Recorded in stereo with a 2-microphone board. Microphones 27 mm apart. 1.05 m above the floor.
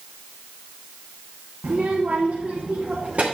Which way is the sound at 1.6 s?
65° right (ahead or behind).